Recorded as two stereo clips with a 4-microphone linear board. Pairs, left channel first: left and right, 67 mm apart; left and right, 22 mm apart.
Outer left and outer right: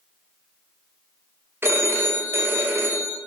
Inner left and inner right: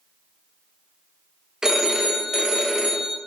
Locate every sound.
1.6 s a phone ringing: 35° right (ahead or behind), 0.9 m